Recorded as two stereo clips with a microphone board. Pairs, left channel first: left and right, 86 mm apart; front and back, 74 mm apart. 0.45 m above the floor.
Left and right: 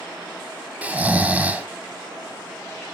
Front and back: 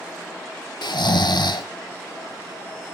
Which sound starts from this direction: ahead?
Snoring, at 0.8 s.